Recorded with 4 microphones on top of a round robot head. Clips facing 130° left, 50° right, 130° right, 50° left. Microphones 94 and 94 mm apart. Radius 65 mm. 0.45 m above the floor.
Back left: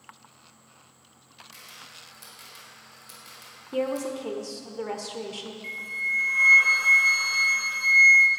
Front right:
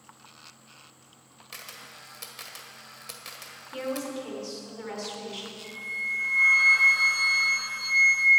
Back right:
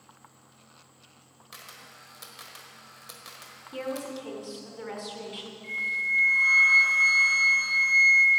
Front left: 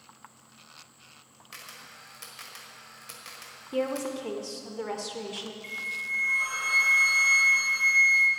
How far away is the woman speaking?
About 1.1 m.